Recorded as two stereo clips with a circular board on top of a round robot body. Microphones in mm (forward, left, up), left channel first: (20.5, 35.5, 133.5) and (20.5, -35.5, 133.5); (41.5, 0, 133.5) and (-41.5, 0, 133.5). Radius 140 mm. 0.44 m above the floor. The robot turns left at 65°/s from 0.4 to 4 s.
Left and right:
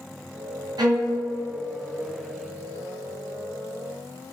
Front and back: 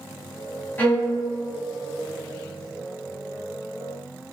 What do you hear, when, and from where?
0.8 s a violin: 70° right, 1.8 m; by 1.2 s 90° right, 1.8 m